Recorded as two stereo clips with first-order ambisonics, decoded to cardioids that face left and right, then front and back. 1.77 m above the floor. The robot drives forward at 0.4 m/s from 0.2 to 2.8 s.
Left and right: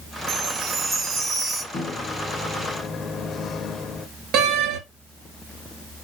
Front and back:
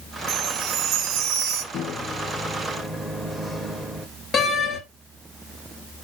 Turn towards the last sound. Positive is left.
turn(degrees=-65)